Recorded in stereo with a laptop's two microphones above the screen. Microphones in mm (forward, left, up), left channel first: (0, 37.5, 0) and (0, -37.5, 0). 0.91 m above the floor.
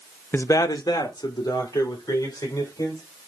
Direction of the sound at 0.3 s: 30° left (ahead or behind).